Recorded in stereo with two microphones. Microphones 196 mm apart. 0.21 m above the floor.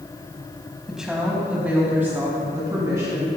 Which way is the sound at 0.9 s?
5° right (ahead or behind).